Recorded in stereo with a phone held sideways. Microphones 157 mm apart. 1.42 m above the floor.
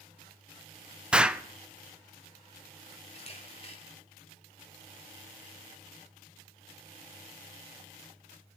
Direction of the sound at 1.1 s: 5° right (ahead or behind).